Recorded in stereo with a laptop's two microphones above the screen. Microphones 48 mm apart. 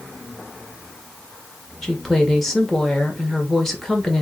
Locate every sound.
1.8 s a woman speaking: 10° left (ahead or behind), 1.7 m